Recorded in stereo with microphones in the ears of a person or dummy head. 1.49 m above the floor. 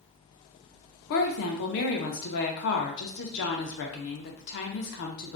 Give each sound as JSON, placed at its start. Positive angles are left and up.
{"t": 1.1, "sound": "a woman speaking", "side_deg": 55, "distance_m": 0.5}